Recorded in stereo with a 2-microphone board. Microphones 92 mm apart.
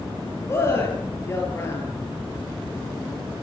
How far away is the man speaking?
About 8 m.